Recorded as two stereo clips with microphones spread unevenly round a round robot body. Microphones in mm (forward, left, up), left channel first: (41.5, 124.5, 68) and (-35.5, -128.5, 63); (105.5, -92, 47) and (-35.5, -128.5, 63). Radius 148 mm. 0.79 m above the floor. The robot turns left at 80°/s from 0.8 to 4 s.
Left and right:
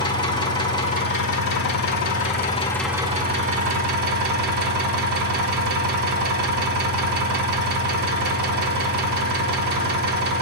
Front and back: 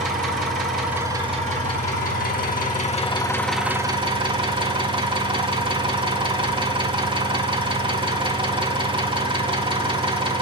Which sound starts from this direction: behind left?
An engine running, at 0.0 s.